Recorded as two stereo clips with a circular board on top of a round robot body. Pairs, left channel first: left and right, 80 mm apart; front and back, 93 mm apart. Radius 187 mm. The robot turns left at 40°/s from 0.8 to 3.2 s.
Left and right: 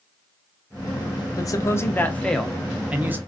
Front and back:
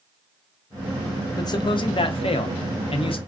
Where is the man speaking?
50° left, 0.7 m; by 3.2 s 25° right, 0.7 m.